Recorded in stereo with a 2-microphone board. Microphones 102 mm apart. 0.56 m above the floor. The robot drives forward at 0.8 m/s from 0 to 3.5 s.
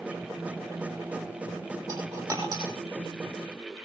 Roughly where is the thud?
I don't hear a thud.